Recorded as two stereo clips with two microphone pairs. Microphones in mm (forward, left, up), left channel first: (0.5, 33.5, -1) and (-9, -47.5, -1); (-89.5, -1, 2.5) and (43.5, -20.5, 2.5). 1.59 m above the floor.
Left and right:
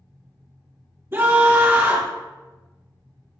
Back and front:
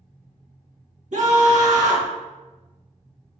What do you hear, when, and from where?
1.1 s a scream: 35° right, 1.9 m